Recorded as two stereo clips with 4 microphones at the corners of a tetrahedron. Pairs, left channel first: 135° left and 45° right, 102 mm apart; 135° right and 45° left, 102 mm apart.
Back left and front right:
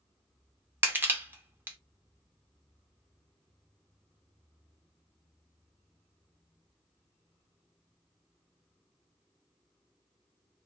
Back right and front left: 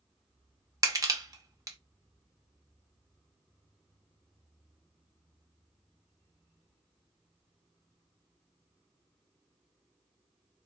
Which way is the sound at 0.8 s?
15° left.